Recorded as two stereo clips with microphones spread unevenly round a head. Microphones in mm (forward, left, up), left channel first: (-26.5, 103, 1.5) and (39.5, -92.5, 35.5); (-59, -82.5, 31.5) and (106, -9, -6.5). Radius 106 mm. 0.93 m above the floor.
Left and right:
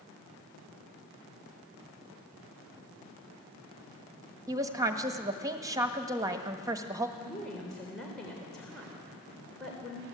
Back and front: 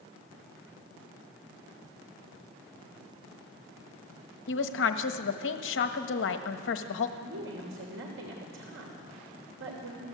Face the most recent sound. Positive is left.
turn(degrees=20)